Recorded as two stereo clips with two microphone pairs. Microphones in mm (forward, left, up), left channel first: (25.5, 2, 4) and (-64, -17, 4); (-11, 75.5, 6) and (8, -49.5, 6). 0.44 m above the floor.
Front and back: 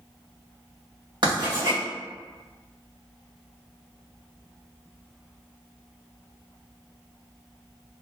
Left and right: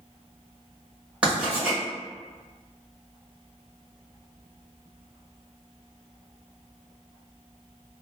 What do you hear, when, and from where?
1.2 s writing: 160° right, 1.9 m